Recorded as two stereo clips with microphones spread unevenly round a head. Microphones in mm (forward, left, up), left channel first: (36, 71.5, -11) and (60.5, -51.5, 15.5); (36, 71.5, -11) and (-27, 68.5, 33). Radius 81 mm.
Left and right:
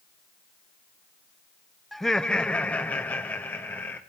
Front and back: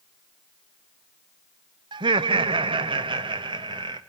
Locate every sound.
1.9 s laughter: 170° left, 0.6 m; by 4.0 s 175° left, 1.7 m